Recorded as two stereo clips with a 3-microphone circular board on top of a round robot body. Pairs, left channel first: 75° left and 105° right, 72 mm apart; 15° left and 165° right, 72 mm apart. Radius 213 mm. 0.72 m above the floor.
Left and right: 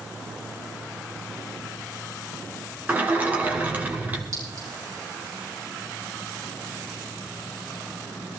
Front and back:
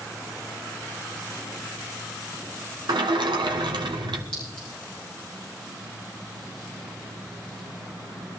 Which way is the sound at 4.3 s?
65° right.